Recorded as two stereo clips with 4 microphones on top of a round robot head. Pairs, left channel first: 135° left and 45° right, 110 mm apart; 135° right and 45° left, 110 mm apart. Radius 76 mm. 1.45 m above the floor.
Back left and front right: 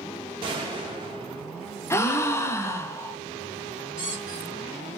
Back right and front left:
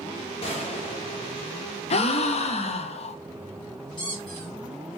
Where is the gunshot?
95° right, 0.7 m.